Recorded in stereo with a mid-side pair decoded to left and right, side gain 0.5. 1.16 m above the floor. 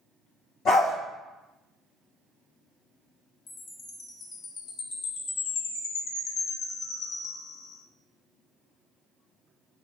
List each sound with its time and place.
0.7 s a dog barking: 70° left, 2 m
3.5 s a chime: 65° left, 0.8 m